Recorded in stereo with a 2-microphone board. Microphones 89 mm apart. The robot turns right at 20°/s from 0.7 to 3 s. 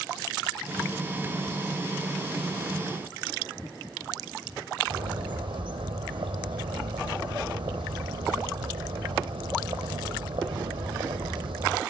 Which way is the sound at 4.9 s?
75° right (ahead or behind).